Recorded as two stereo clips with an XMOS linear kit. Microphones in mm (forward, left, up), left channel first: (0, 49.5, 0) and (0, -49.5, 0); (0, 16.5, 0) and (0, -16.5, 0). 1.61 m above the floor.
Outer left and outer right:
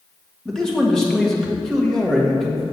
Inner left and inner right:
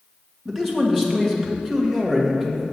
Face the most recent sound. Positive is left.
turn(degrees=5)  # may be behind; listen again after turning